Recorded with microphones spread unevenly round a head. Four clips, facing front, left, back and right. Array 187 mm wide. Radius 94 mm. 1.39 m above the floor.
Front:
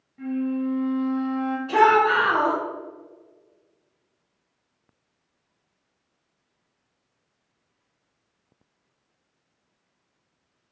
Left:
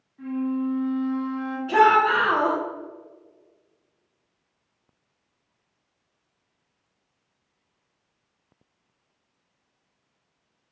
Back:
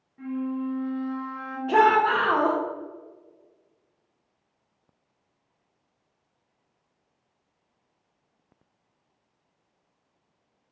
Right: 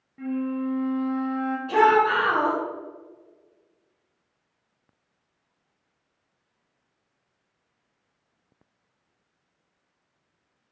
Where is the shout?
Straight behind, 0.9 m.